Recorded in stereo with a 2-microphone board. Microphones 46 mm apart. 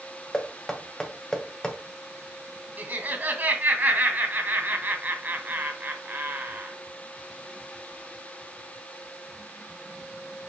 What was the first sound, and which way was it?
Knocking, 15° left (ahead or behind).